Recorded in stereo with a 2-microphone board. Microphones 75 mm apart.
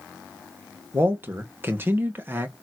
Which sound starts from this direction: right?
A man speaking, at 0.9 s.